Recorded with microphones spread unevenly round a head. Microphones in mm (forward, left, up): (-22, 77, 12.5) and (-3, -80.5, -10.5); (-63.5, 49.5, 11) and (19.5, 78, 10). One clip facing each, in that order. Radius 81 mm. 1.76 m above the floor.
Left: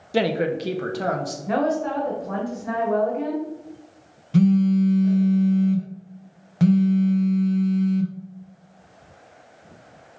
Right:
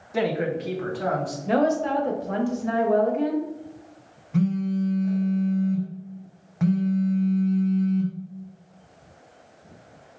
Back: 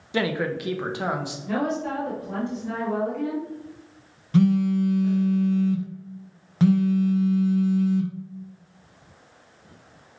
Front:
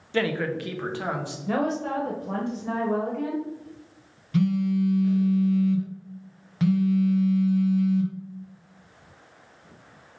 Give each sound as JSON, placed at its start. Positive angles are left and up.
{"t": 0.1, "sound": "a man speaking", "azimuth_deg": 125, "distance_m": 0.5}
{"t": 1.5, "sound": "a woman speaking", "azimuth_deg": -25, "distance_m": 0.9}
{"t": 4.3, "sound": "a phone buzzing", "azimuth_deg": 140, "distance_m": 0.6}